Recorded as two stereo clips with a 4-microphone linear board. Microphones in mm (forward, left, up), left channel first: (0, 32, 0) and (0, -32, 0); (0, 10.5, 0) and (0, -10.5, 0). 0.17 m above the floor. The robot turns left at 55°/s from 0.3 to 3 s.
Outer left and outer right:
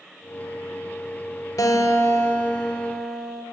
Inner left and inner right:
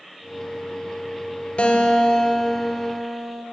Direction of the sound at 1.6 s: 80° left.